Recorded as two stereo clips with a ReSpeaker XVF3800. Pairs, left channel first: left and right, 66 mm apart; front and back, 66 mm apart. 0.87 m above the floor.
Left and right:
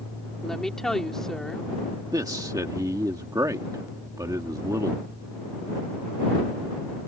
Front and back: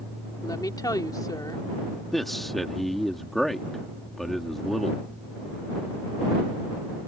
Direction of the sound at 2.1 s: 90° right.